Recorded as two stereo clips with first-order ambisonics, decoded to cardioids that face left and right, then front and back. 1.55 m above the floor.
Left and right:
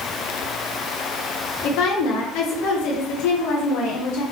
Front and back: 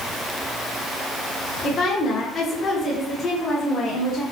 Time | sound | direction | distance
1.6 | a woman speaking | 65° left | 1.3 m